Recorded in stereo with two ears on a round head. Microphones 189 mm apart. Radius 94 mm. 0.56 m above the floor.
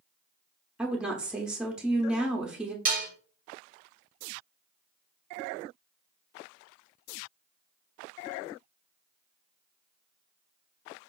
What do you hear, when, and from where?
0.8 s a woman speaking: 5° right (ahead or behind), 0.6 m
2.9 s dishes clattering: 40° right (ahead or behind), 0.8 m